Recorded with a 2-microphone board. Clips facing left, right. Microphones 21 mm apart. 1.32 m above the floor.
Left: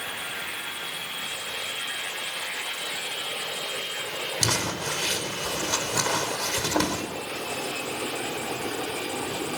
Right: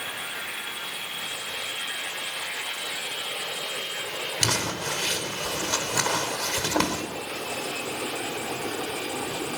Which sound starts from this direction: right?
Crumpling, at 4.4 s.